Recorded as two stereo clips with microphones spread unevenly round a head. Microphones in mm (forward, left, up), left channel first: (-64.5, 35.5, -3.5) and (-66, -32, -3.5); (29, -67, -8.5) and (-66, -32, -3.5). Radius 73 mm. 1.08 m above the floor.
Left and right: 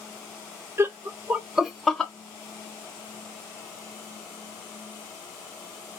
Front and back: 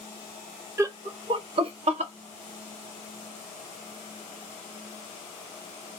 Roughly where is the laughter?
Behind right.